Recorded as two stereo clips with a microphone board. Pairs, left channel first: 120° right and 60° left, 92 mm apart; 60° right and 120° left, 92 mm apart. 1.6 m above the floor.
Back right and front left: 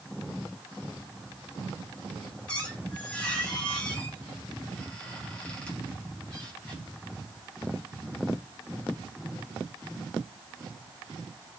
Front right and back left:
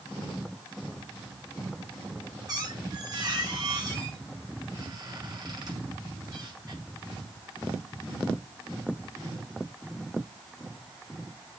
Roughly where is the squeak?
Behind.